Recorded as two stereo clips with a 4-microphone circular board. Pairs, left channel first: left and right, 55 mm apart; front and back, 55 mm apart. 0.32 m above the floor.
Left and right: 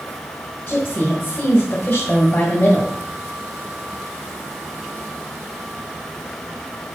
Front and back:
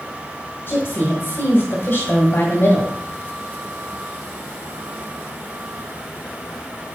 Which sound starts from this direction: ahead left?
A woman speaking, at 0.7 s.